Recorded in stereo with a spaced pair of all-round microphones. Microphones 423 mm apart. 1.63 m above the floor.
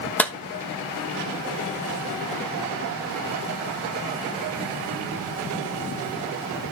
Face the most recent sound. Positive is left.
turn(degrees=5)  # may be behind; listen again after turning